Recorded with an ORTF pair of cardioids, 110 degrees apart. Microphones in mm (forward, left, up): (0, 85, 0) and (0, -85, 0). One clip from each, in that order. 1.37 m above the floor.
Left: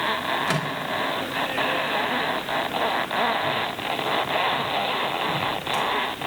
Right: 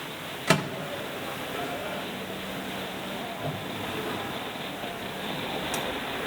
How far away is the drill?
I don't hear a drill.